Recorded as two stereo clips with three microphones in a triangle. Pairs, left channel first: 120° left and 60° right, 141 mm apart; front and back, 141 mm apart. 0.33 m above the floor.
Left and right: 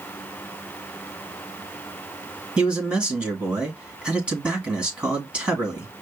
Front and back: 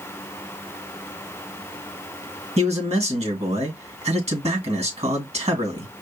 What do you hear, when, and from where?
2.6 s a man speaking: 140° right, 2 m